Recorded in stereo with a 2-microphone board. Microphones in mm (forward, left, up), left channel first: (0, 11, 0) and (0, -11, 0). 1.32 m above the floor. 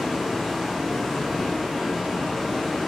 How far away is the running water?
About 1.1 m.